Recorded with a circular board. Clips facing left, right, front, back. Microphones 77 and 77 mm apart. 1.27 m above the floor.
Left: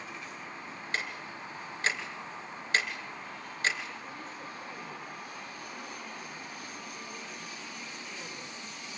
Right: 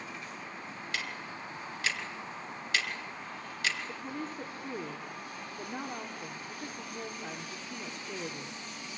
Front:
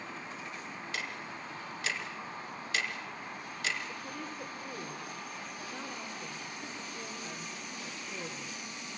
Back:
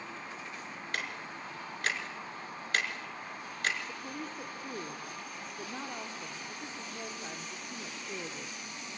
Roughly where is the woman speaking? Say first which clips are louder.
Right 4 dB, back 1 dB; behind right.